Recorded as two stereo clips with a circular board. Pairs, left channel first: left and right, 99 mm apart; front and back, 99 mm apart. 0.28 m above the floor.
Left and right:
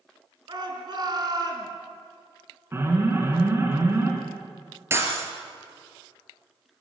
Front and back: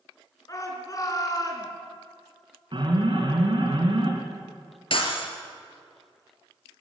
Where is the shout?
50° right, 4.5 m; by 1.7 s 45° right, 4 m.